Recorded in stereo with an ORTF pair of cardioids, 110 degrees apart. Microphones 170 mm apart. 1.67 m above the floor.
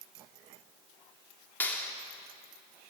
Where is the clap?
10° left, 3.5 m.